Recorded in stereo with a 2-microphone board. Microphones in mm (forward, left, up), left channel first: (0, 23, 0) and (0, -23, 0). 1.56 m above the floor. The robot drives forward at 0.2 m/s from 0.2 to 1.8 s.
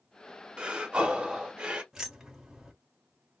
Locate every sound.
0.6 s breathing: 20° right (ahead or behind), 0.7 m
1.9 s keys jangling: 10° right (ahead or behind), 1.0 m